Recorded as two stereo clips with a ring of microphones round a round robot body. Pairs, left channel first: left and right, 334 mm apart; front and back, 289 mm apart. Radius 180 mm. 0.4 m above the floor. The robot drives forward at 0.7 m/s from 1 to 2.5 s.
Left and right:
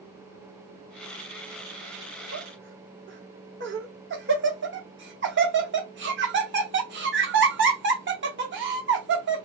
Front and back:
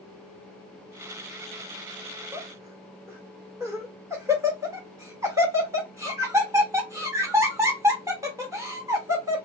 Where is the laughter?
95° right, 0.9 m; by 9.4 s 105° right, 0.9 m.